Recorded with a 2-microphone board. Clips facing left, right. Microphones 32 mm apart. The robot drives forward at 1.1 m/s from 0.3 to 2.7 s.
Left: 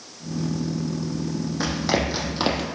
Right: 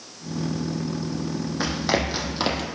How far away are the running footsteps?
About 3 m.